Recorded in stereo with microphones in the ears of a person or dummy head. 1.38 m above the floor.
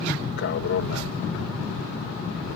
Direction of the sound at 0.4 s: 55° left (ahead or behind).